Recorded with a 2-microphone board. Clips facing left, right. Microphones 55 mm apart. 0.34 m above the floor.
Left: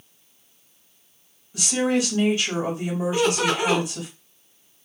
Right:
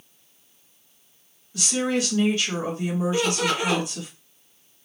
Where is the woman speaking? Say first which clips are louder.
Left 2 dB; 20° left (ahead or behind), 2 m.